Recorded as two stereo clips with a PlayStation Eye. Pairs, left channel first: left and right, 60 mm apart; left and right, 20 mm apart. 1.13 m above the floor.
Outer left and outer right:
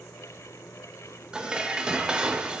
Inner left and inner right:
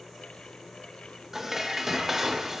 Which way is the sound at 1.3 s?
15° right (ahead or behind).